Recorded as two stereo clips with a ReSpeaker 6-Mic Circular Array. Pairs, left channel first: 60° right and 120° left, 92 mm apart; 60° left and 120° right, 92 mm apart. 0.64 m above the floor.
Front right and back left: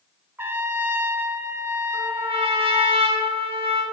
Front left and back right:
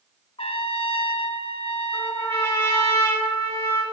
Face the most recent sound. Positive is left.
turn(degrees=125)